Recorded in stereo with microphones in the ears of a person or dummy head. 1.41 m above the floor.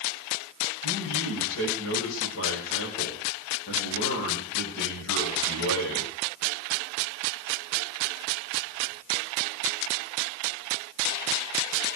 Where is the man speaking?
80° left, 6.5 m.